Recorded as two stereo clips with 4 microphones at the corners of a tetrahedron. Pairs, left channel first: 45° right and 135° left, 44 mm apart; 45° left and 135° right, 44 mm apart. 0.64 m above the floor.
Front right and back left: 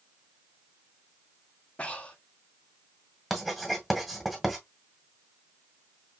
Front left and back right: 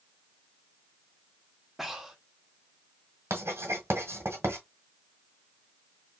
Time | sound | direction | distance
1.8 | breathing | 55° right | 0.9 m
3.3 | writing | 135° right | 1.5 m